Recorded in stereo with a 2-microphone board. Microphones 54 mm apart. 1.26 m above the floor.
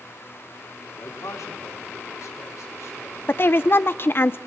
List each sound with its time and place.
0.9 s a man speaking: 70° left (ahead or behind), 4 m; by 4.3 s 60° left (ahead or behind), 6.5 m
3.3 s a woman speaking: 45° left (ahead or behind), 0.8 m